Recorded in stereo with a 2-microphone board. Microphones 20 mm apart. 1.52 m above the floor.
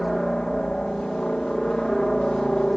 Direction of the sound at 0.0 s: 20° left (ahead or behind).